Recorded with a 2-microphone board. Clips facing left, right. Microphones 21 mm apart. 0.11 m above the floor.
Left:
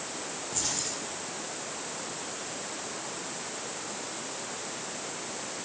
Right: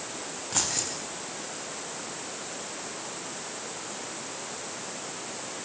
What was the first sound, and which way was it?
Keys jangling, 35° right (ahead or behind).